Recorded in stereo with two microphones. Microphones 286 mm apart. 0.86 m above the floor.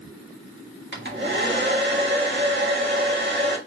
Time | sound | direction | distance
0.9 | a hair dryer | 40° right (ahead or behind) | 1.4 m